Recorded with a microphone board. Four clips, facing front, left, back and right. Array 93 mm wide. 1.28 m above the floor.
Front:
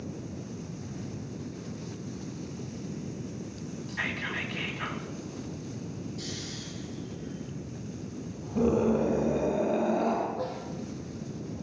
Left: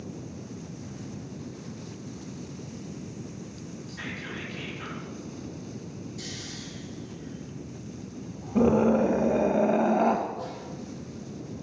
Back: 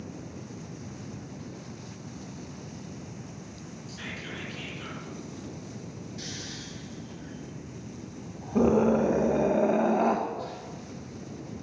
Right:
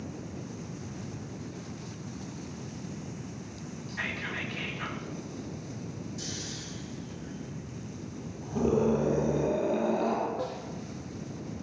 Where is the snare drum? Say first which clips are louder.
Right 2 dB, front 3 dB; 95° right, 7 m.